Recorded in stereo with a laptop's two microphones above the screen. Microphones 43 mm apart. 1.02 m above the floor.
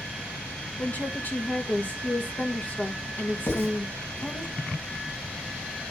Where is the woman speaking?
45° left (ahead or behind), 1.4 m.